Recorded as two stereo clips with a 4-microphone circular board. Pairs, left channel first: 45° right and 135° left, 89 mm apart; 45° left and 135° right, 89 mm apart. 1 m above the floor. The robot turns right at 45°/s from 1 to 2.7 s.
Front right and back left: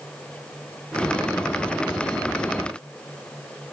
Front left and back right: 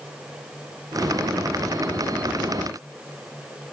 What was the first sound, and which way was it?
Only background noise.